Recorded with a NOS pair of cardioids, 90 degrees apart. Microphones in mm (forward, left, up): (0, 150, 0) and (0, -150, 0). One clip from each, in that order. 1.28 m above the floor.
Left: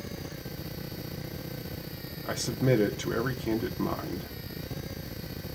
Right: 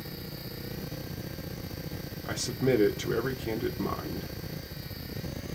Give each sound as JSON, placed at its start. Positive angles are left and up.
{"t": 2.2, "sound": "a man speaking", "azimuth_deg": 5, "distance_m": 0.6}